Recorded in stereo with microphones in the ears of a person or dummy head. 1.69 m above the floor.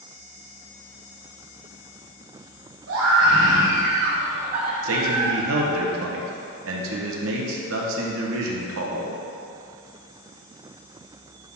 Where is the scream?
80° right, 2.5 m; by 5.7 s 15° right (ahead or behind), 1.6 m.